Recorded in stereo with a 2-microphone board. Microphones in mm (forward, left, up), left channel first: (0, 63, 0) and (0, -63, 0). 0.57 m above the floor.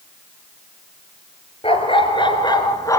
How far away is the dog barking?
About 3 m.